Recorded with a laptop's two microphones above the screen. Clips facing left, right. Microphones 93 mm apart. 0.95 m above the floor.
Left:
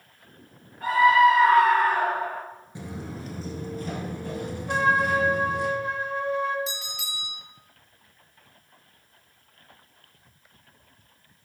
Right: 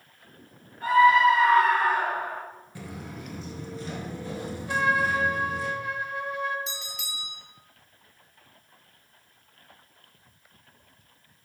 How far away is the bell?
About 1.6 m.